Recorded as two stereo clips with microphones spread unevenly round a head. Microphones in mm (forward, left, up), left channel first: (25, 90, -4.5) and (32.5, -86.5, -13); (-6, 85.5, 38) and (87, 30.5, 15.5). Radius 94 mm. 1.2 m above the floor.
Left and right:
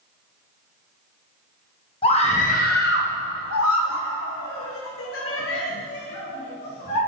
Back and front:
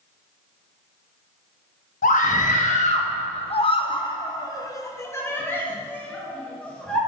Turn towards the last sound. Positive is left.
turn(degrees=65)